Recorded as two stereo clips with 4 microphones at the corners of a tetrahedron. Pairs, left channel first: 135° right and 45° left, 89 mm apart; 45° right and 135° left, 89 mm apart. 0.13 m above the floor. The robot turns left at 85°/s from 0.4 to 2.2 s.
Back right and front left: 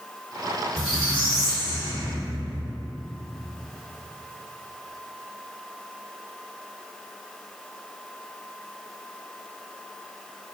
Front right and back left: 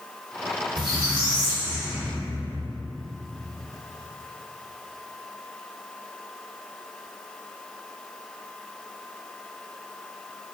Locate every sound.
0.8 s a squeak: 135° left, 1.5 m; by 2.8 s 15° left, 1.5 m